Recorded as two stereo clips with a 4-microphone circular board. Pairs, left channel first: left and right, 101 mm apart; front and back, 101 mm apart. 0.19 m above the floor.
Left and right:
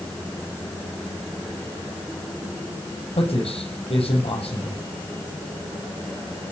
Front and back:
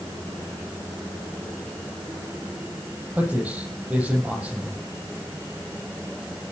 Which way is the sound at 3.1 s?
100° left.